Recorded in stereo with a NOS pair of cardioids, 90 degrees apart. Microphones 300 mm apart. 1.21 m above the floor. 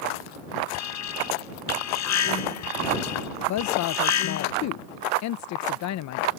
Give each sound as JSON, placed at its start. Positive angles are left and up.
{"t": 0.7, "sound": "an alarm", "azimuth_deg": 60}
{"t": 3.5, "sound": "a woman speaking", "azimuth_deg": 65}